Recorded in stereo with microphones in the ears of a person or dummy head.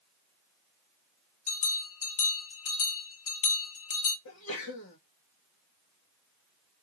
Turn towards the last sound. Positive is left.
turn(degrees=80)